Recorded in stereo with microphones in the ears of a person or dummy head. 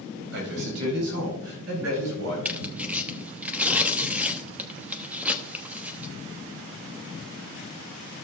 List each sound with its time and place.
0.3 s a man speaking: 60° right (ahead or behind), 3.5 m; by 2.4 s 80° right, 5 m
2.5 s tearing paper: 5° right (ahead or behind), 0.9 m